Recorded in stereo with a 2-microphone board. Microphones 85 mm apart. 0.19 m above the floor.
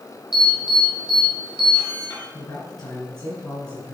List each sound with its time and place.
0.3 s an alarm: 55° left (ahead or behind), 3 m
2.3 s a man speaking: 55° left (ahead or behind), 2.5 m